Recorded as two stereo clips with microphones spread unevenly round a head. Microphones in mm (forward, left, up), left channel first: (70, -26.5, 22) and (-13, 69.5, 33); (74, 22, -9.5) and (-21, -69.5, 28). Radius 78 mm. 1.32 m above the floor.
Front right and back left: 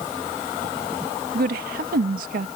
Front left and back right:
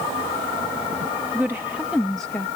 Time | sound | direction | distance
1.3 | a woman speaking | 145° left | ?